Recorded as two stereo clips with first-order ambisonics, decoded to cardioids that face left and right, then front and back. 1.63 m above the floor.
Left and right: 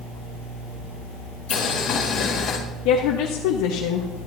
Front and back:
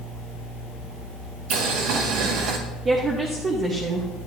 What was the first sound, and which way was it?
Boiling, 150° left.